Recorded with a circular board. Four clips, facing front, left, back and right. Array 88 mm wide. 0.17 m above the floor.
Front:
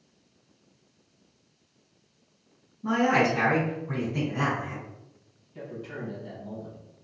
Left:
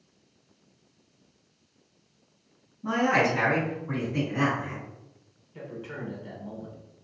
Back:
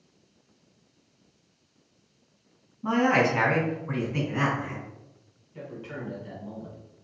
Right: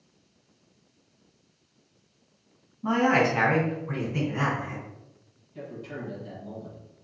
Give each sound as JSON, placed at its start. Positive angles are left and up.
{"t": 2.8, "sound": "a man speaking", "azimuth_deg": -130, "distance_m": 1.8}
{"t": 5.5, "sound": "a man speaking", "azimuth_deg": 125, "distance_m": 1.2}